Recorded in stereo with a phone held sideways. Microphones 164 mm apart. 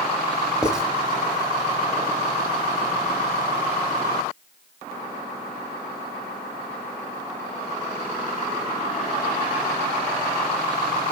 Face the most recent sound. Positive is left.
turn(degrees=-5)  # may be behind; listen again after turning